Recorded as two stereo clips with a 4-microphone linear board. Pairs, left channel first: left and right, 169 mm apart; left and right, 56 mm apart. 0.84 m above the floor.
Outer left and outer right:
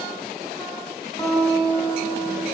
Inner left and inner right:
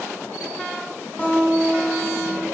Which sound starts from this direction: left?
A guitar, at 1.2 s.